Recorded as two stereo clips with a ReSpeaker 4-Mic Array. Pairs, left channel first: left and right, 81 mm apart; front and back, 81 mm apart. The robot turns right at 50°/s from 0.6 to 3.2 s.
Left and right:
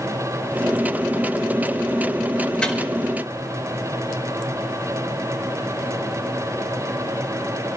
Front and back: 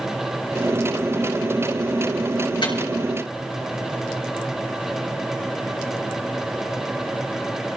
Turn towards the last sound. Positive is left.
turn(degrees=40)